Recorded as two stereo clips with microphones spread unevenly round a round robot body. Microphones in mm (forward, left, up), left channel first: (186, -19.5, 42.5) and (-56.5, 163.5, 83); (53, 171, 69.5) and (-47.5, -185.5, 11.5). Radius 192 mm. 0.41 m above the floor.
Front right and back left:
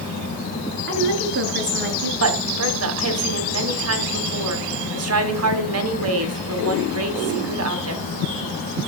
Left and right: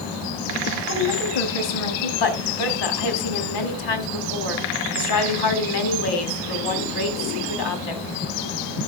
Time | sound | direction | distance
0.9 | a woman speaking | 90° left | 5 m
2.2 | a woman speaking | 105° left | 4 m